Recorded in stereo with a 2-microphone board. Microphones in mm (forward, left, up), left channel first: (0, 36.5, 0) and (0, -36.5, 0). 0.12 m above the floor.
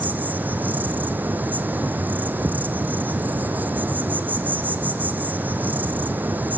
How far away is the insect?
About 1.3 m.